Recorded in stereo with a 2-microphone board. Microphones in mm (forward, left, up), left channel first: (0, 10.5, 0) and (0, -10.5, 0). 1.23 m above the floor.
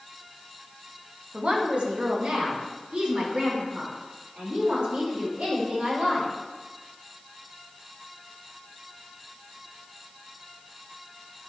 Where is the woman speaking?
55° right (ahead or behind), 1.8 m; by 6.3 s 85° right, 6 m.